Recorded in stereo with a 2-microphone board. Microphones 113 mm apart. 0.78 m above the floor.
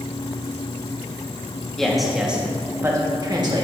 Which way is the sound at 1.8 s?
5° left (ahead or behind).